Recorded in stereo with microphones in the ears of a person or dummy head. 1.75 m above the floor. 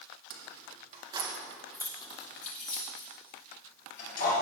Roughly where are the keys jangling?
Right.